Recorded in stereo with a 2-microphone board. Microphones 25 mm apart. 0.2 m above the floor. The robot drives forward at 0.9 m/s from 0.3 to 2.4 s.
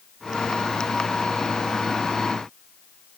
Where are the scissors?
I don't hear scissors.